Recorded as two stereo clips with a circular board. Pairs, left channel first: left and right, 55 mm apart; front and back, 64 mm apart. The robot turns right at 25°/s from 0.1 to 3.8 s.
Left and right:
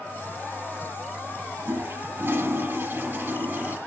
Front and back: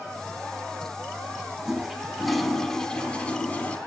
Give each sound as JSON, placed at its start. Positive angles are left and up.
{"t": 1.6, "sound": "a toilet flushing", "azimuth_deg": -100, "distance_m": 0.5}